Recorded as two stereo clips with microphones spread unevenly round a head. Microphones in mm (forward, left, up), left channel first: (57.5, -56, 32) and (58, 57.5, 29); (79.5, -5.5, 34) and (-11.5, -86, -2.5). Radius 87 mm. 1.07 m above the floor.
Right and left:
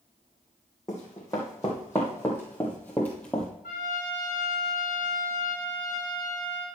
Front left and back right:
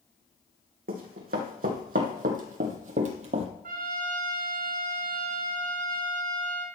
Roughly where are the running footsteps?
Behind.